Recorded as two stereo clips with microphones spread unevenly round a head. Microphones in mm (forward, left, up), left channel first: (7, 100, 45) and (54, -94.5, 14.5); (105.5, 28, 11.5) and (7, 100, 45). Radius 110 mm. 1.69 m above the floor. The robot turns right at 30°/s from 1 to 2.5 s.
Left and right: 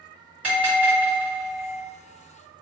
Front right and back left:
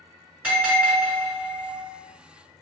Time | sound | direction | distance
0.4 | a bell | 170° right | 1.9 m